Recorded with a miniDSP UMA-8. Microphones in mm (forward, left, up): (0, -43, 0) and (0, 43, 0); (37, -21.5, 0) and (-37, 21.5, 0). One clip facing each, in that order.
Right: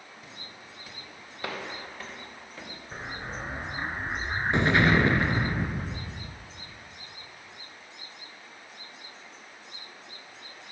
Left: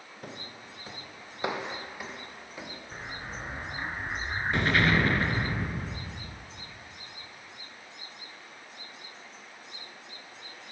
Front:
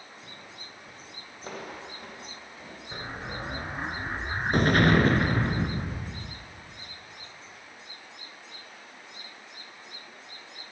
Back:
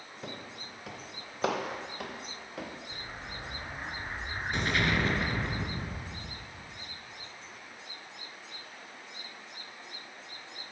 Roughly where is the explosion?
Ahead right.